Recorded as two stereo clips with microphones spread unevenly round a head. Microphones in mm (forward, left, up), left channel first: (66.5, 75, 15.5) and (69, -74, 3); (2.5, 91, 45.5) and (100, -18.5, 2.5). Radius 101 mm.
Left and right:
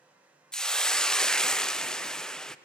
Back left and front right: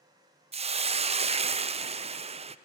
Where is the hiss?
5° left, 0.6 m.